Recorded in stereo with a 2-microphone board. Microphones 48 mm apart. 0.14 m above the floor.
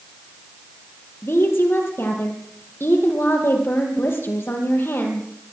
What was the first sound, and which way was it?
A woman speaking, 60° left (ahead or behind).